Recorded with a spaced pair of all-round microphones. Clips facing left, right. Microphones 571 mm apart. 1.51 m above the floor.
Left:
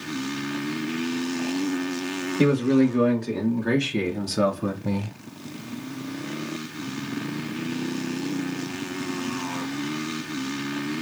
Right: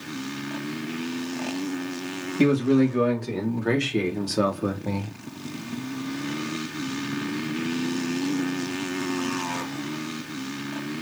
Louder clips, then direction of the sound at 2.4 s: Even; 15° right (ahead or behind).